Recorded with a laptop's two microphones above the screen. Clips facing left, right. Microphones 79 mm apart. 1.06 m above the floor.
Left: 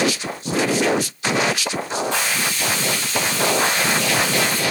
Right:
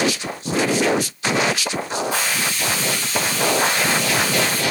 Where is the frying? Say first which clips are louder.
Even; 10° right (ahead or behind), 3 m.